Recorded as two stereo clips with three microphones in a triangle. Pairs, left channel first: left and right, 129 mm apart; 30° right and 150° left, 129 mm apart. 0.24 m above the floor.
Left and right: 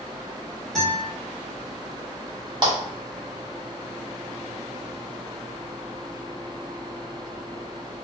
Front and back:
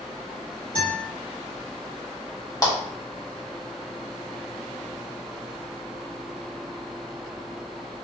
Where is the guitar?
5° left, 2.0 m.